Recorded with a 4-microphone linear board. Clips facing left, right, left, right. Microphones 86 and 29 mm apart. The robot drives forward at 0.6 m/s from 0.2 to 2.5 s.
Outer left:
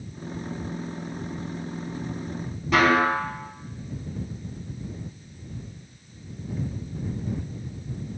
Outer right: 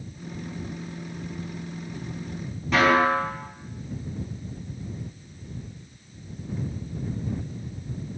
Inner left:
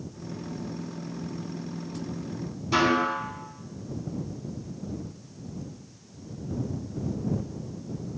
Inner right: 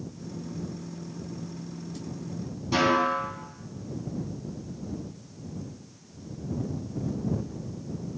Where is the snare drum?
Centre (ahead or behind), 4.5 m.